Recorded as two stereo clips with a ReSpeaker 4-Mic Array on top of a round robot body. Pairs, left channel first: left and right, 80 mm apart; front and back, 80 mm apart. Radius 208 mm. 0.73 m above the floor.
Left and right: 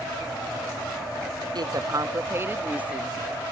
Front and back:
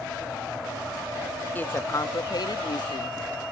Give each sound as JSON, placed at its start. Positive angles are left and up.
{"t": 1.6, "sound": "a woman speaking", "azimuth_deg": -65}